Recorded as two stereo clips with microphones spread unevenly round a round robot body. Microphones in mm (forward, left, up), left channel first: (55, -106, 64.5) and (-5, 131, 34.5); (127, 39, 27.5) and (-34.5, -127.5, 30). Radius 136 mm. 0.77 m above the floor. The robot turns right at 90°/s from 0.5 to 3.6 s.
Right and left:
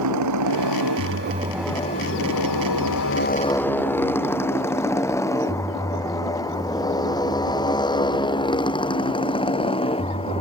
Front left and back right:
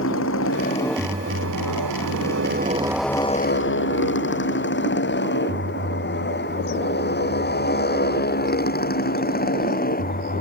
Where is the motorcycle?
95° left; by 10.4 s 10° right.